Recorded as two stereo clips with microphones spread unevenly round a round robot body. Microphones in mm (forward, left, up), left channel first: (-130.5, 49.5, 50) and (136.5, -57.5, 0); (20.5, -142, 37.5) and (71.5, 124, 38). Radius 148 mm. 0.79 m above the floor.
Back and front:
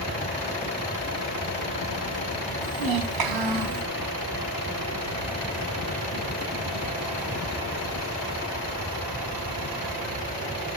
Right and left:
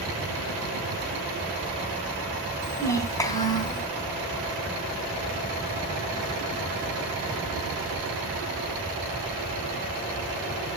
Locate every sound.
2.6 s a child speaking: 20° right, 4.5 m; by 3.8 s 25° right, 3.5 m